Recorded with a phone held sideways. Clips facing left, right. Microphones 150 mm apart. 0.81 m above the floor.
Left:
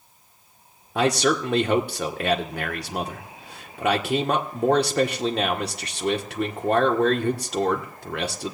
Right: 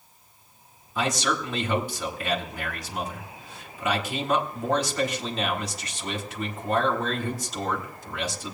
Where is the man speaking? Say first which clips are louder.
Left 6 dB; 65° left (ahead or behind), 1.7 m.